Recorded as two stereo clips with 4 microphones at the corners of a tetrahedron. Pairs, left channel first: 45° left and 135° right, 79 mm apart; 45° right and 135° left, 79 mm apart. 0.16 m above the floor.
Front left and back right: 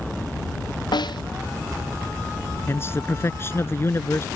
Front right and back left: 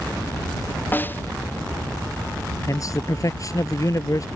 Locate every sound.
0.9 s a snare drum: 20° left
2.7 s a man speaking: 10° right